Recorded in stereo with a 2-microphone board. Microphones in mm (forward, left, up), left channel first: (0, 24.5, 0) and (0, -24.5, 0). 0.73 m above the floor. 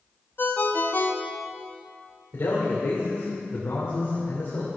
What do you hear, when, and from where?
0.4 s a ringtone: 45° left (ahead or behind), 0.7 m
2.3 s a man speaking: 70° left (ahead or behind), 2.5 m